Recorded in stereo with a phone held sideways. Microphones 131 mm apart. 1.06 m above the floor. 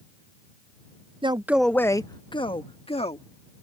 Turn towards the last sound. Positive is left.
turn(degrees=50)  # may be behind; listen again after turning